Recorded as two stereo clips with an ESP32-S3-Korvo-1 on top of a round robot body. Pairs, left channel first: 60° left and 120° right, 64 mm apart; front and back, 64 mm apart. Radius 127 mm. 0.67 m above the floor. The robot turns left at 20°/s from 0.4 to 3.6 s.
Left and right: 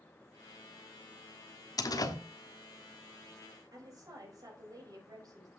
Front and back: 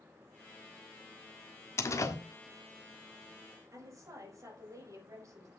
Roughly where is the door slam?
Ahead left.